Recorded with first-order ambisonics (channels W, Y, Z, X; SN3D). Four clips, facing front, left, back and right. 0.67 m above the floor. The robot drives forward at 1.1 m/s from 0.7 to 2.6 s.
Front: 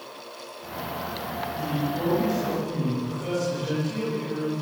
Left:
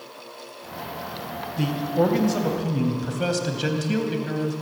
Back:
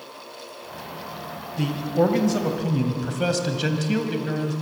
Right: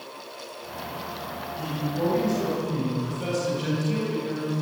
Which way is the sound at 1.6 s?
135° left.